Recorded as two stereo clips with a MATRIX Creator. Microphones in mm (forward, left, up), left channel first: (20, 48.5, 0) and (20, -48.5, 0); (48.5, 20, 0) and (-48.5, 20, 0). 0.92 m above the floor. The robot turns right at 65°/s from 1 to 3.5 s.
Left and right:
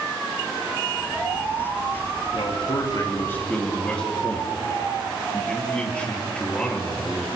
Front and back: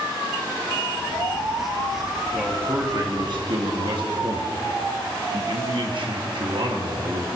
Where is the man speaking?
90° left, 1.5 m; by 7.4 s 165° left, 1.5 m.